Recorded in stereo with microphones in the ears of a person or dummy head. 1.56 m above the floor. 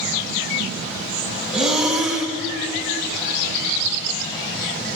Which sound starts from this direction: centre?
Breathing, at 1.5 s.